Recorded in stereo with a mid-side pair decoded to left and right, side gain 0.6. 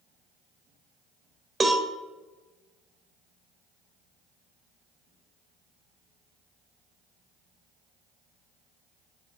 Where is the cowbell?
25° right, 0.7 m.